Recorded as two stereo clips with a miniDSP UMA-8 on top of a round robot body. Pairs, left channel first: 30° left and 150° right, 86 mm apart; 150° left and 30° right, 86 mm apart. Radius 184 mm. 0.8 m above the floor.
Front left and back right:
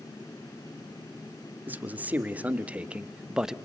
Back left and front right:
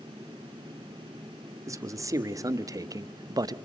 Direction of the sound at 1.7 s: 80° right.